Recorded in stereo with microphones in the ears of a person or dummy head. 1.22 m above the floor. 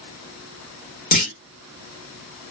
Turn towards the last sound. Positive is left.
turn(degrees=50)  # may be behind; listen again after turning